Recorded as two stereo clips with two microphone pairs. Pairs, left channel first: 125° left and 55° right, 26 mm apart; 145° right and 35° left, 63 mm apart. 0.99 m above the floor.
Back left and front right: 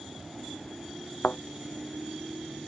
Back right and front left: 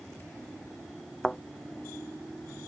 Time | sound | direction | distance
1.2 | a thud | 135° left | ?